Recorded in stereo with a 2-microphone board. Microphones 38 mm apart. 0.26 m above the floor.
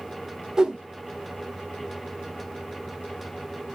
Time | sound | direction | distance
0.6 | a whoosh | 15° right (ahead or behind) | 0.5 m